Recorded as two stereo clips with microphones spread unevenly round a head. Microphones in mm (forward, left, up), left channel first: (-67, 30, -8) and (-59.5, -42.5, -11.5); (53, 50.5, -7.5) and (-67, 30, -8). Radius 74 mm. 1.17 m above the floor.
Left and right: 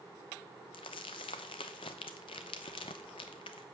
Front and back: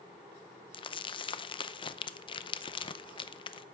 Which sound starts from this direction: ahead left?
Crumpling, at 0.7 s.